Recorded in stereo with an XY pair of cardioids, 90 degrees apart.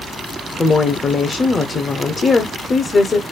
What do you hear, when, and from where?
0.6 s a woman speaking: 45° left, 0.6 m